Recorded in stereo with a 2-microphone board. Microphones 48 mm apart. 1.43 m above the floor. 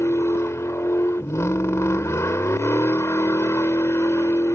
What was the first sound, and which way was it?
A vehicle, 85° left.